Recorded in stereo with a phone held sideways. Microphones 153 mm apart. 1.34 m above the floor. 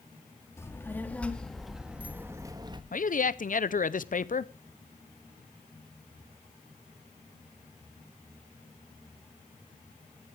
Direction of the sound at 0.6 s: 20° left (ahead or behind).